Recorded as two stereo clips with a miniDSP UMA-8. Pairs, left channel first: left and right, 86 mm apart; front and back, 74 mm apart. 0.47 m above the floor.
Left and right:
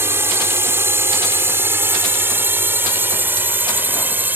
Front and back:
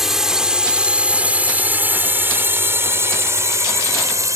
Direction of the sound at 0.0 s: 100° right.